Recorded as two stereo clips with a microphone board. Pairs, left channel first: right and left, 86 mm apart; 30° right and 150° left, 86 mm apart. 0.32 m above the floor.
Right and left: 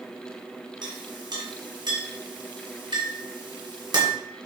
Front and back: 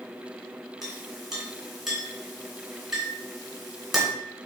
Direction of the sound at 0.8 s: 65° left.